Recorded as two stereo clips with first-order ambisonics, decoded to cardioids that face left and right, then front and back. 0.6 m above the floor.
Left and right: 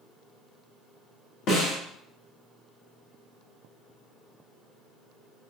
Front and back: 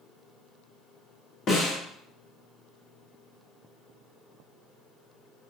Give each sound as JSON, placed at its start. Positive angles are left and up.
{"t": 1.5, "sound": "a snare drum", "azimuth_deg": 55, "distance_m": 1.1}